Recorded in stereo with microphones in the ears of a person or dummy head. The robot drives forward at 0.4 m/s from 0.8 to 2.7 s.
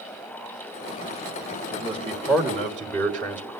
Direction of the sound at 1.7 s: 5° left (ahead or behind).